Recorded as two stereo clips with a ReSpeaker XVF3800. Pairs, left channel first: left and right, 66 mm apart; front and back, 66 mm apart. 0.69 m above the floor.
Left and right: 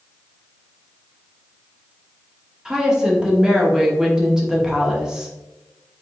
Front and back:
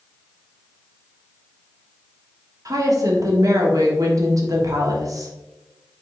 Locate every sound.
2.6 s a woman speaking: 170° right, 1.2 m